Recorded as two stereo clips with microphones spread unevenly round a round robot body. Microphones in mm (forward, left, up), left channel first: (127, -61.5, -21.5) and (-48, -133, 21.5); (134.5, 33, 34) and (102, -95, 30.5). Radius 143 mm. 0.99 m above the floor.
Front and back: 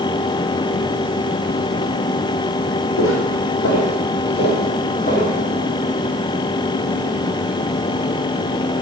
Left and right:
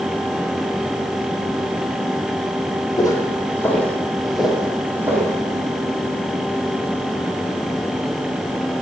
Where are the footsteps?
15° left, 3 m; by 5.3 s 35° right, 3 m.